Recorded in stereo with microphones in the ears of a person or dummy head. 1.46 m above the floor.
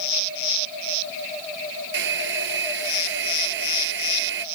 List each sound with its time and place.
1.9 s a hair dryer: 65° right (ahead or behind)